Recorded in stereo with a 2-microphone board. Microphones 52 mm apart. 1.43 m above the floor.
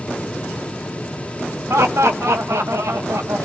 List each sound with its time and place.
1.7 s laughter: 70° right (ahead or behind), 1.0 m